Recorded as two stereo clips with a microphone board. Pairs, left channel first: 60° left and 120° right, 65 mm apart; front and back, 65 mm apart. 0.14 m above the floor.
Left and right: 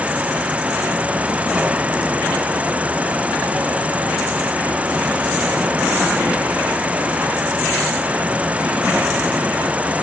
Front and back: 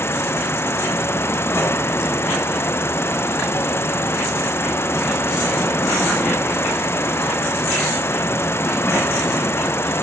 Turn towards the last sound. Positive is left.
turn(degrees=-50)